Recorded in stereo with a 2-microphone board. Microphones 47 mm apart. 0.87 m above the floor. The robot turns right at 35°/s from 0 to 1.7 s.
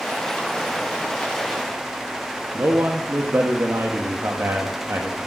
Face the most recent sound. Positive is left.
turn(degrees=-55)  # may be behind; listen again after turning